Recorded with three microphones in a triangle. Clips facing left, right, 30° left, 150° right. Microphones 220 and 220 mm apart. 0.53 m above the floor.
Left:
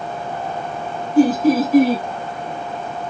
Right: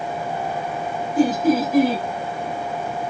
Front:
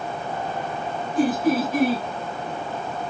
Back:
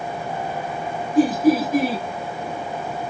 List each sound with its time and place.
1.1 s laughter: 170° left, 2 m